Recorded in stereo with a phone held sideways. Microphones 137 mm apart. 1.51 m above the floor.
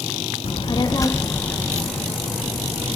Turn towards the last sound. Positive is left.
turn(degrees=-10)  # may be behind; listen again after turning